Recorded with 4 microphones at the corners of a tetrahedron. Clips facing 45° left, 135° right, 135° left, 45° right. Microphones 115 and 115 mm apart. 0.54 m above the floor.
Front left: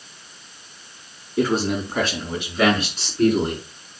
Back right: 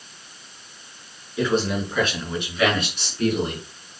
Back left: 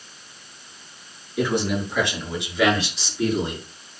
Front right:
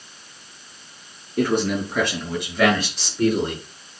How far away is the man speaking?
About 6.5 m.